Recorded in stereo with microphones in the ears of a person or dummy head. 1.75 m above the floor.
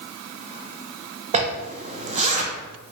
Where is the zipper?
35° right (ahead or behind), 0.7 m.